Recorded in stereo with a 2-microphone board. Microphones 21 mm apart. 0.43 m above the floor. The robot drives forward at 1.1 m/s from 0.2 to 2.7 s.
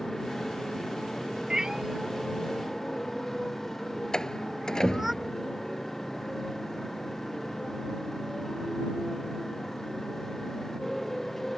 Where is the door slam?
25° left (ahead or behind).